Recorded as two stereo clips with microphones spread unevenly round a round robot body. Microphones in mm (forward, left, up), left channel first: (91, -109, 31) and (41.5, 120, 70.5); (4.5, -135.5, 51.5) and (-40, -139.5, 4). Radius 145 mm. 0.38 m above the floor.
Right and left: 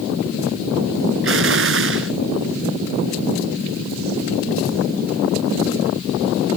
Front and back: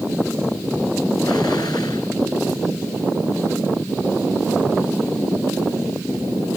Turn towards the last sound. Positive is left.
turn(degrees=70)